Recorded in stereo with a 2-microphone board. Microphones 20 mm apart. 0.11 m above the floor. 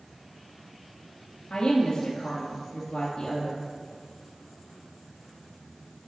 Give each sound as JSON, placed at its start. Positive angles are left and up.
{"t": 1.5, "sound": "a woman speaking", "side_deg": 50, "distance_m": 1.8}